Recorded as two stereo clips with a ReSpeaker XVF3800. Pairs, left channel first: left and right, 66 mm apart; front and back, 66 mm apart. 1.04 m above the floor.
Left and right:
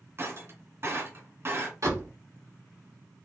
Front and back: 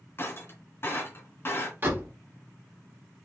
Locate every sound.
0.2 s breaking glass: 45° right, 1.8 m
1.8 s a door slam: 125° right, 2.0 m